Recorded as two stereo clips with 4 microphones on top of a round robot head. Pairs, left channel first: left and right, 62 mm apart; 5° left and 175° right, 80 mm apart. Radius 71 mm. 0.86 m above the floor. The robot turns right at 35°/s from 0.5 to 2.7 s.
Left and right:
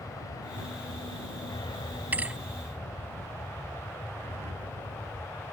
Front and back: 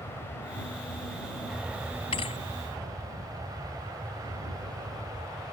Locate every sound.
0.0 s an aircraft: 65° left; by 5.5 s 140° left
2.1 s a thud: 30° right; by 2.4 s 20° right